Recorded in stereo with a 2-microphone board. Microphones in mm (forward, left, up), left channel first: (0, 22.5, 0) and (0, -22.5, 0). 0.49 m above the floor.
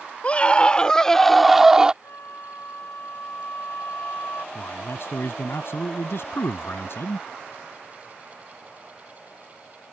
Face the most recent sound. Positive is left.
turn(degrees=65)  # may be behind; listen again after turning